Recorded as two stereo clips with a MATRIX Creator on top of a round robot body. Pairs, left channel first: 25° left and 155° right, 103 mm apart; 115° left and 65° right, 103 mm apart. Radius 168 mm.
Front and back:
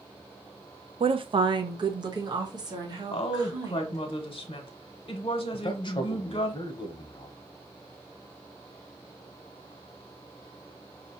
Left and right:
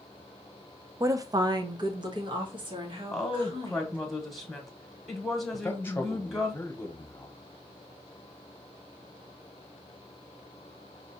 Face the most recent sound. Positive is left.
turn(degrees=50)